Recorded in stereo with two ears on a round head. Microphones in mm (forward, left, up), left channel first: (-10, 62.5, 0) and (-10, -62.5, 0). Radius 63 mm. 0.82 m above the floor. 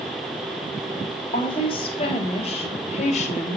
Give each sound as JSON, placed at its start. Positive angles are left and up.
{"t": 1.3, "sound": "a woman speaking", "side_deg": 40, "distance_m": 4.0}